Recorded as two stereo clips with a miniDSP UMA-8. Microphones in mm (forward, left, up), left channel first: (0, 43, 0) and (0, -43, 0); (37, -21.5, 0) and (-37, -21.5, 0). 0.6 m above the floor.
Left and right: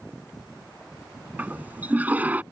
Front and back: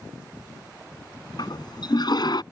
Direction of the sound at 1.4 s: 20° right.